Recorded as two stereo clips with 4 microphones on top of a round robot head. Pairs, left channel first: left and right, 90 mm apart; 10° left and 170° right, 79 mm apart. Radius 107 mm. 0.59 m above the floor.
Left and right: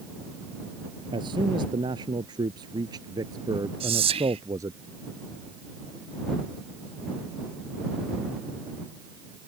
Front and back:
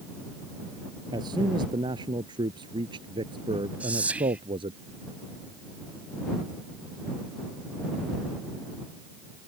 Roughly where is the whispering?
Right.